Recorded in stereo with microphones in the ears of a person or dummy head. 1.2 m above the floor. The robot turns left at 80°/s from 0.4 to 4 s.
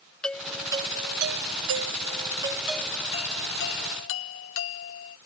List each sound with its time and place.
0.2 s a doorbell: 5° left; by 5.2 s 75° left